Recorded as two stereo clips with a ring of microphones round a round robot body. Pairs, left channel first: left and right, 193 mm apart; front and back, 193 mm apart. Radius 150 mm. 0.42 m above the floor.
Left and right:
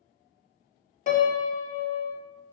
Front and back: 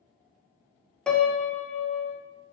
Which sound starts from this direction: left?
A piano, at 1.1 s.